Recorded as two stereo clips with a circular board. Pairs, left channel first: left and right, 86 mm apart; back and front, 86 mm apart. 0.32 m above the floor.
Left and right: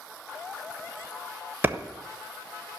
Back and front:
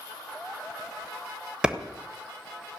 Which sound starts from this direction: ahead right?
A clap, at 1.6 s.